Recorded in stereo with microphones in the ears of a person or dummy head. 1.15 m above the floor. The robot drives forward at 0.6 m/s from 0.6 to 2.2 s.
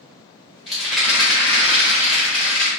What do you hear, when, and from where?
0.7 s a rattle: centre (ahead or behind), 1.4 m